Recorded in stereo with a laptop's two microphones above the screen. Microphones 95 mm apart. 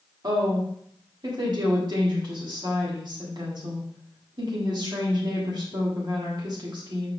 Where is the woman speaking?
50° right (ahead or behind), 1.7 m.